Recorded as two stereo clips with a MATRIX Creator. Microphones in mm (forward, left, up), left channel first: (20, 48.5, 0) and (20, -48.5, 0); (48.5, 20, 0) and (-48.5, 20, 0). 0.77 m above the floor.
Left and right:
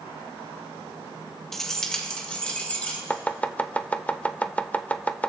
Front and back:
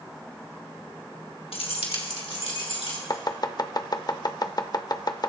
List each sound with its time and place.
1.5 s keys jangling: 5° left, 1.3 m; by 3.0 s 15° left, 3 m
3.1 s chopping: 20° left, 0.5 m